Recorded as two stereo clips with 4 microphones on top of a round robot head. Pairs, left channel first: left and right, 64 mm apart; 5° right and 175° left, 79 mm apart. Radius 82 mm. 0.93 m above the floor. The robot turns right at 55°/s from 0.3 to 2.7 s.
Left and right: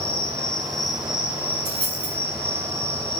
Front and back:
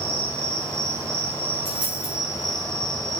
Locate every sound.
0.0 s an insect: 150° left, 0.8 m; by 3.2 s 80° right, 0.8 m
1.6 s a dropped coin: 105° right, 1.1 m; by 2.1 s 80° right, 1.1 m